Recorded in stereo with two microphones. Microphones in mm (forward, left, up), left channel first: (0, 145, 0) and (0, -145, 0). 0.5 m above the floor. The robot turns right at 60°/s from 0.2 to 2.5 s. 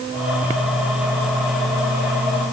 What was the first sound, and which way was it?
Only background noise.